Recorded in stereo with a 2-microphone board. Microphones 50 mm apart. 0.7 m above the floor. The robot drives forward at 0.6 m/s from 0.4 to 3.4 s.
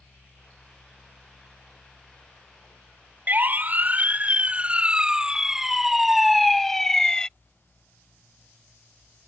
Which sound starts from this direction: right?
A siren, at 3.3 s.